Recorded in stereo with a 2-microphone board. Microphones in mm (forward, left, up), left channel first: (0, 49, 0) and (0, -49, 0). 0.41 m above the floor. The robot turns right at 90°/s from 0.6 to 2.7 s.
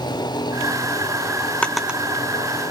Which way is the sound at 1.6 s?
10° left (ahead or behind).